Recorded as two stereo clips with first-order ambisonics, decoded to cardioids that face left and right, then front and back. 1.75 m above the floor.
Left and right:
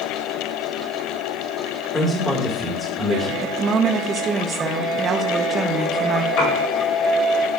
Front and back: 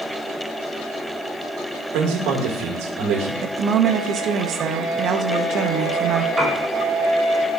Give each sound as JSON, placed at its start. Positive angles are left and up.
{"t": 1.9, "sound": "a man speaking", "azimuth_deg": 165, "distance_m": 1.9}
{"t": 3.4, "sound": "a woman speaking", "azimuth_deg": -150, "distance_m": 0.6}
{"t": 6.4, "sound": "a piano", "azimuth_deg": 105, "distance_m": 4.0}